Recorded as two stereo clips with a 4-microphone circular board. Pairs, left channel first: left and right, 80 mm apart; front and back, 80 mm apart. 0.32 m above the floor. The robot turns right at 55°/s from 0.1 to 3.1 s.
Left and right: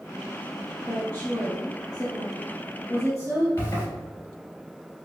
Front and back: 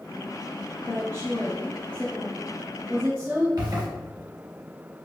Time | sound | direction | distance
0.8 | a woman speaking | 5° right | 1.9 m
3.6 | a zipper | 150° left | 1.8 m